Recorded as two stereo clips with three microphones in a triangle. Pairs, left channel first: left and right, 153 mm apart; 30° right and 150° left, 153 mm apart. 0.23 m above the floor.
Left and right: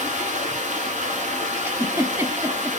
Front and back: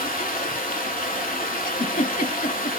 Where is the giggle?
15° right, 0.7 m.